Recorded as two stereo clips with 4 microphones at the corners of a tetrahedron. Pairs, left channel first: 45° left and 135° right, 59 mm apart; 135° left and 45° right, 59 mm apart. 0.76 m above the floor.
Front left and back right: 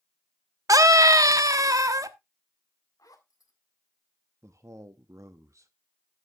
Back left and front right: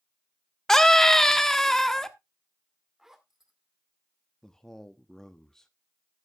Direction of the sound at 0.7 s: 145° right.